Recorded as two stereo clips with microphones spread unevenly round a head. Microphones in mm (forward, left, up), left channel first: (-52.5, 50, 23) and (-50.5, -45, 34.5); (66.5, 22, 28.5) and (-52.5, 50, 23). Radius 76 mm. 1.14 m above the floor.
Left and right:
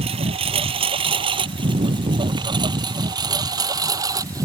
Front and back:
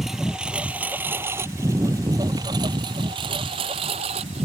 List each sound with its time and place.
0.0 s a lawn mower: 105° right; by 4.5 s 140° right